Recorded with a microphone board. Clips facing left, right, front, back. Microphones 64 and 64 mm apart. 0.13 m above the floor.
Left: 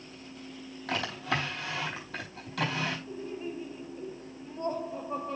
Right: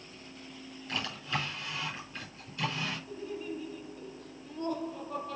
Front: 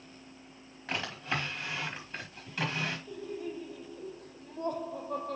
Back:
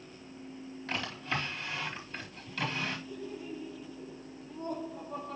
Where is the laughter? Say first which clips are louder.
Left 1 dB, front 2 dB; 30° left, 4 m.